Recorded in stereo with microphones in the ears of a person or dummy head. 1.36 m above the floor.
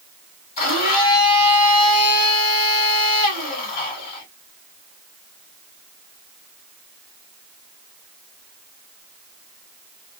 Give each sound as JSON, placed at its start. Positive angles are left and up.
{"t": 0.6, "sound": "a blender", "side_deg": 35, "distance_m": 2.0}